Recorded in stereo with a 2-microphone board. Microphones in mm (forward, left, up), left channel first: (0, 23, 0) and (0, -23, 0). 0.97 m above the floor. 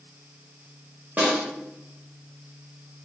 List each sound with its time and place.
1.2 s a snare drum: 35° right (ahead or behind), 0.9 m